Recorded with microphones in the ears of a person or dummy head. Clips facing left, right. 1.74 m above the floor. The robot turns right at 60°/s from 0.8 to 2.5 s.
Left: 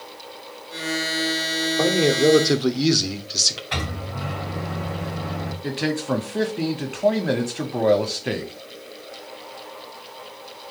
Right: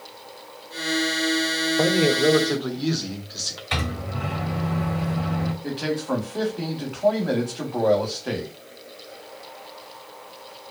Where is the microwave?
55° right (ahead or behind), 2.5 m.